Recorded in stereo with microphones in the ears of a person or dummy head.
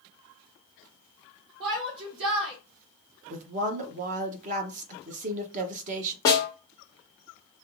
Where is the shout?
55° right (ahead or behind), 3.5 m.